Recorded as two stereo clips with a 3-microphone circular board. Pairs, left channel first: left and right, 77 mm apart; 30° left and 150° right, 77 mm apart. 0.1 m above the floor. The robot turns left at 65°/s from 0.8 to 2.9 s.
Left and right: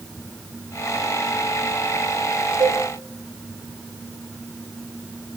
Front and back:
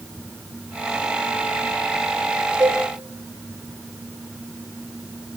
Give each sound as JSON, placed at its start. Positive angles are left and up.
{"t": 2.6, "sound": "a cowbell", "azimuth_deg": -95, "distance_m": 5.5}